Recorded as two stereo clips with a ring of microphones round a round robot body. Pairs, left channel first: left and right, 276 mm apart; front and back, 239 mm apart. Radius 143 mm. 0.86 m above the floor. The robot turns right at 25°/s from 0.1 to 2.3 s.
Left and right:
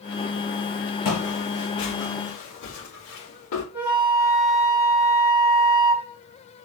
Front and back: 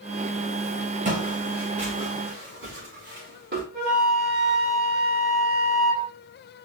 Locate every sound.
1.1 s footsteps: 125° left, 3.5 m; by 3.6 s 135° left, 5.5 m
3.7 s a flute: 175° right, 3 m